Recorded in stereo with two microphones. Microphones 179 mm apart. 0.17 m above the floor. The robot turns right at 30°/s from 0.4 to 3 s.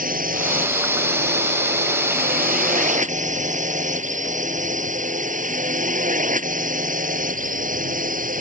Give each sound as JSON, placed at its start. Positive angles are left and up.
{"t": 0.0, "sound": "a drone", "side_deg": -50}